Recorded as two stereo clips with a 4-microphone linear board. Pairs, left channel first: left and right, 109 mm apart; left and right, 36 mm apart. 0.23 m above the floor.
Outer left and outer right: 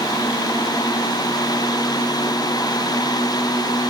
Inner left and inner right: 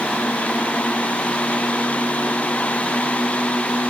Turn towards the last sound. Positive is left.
No sound to turn to.